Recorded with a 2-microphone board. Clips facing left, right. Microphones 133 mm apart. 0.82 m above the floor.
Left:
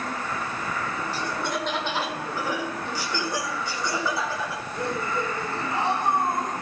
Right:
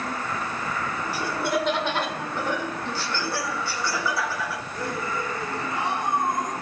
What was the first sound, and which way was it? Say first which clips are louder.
Laughter: right 6 dB; 10° right (ahead or behind).